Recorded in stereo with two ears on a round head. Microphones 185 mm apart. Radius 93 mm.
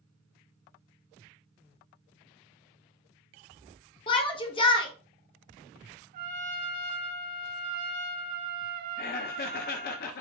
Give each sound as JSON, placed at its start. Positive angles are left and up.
{"t": 4.1, "sound": "a shout", "side_deg": 25, "distance_m": 1.1}
{"t": 6.1, "sound": "a trumpet", "side_deg": -45, "distance_m": 1.8}
{"t": 9.0, "sound": "laughter", "side_deg": 45, "distance_m": 0.5}